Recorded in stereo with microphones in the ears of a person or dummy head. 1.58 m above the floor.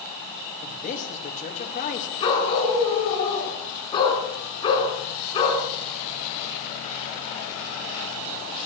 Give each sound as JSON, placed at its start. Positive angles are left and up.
{"t": 0.6, "sound": "a man speaking", "side_deg": 45, "distance_m": 3.0}
{"t": 2.2, "sound": "a dog barking", "side_deg": 30, "distance_m": 5.5}